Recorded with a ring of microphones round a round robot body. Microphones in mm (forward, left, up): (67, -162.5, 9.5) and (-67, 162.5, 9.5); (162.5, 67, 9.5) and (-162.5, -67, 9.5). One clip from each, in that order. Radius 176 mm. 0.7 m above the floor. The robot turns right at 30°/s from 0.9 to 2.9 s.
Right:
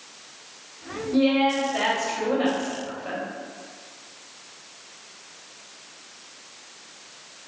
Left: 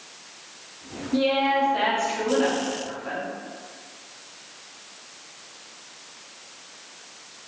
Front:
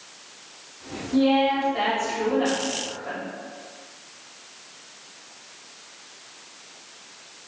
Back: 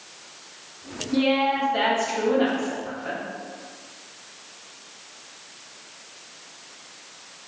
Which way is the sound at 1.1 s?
155° right.